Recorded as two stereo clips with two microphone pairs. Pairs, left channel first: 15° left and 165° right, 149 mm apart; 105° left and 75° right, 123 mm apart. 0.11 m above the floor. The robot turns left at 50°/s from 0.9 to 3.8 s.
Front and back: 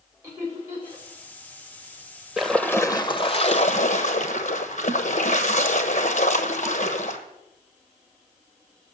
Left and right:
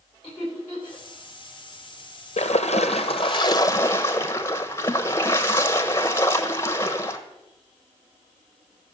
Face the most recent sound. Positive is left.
turn(degrees=40)